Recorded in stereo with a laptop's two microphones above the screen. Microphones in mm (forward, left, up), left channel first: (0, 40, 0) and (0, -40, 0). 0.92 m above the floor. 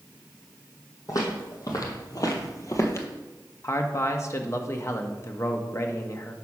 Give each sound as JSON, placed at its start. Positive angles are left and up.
{"t": 1.1, "sound": "footsteps", "side_deg": 45, "distance_m": 2.0}
{"t": 3.6, "sound": "a man speaking", "side_deg": 35, "distance_m": 1.0}